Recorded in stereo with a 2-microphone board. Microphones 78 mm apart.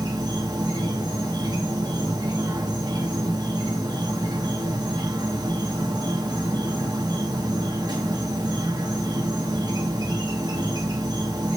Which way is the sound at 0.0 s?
60° right (ahead or behind).